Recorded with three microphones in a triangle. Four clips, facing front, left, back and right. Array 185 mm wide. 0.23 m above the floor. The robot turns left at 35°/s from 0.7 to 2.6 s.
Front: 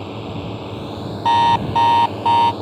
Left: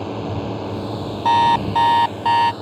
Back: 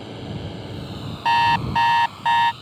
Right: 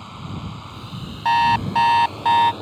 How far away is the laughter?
I don't hear laughter.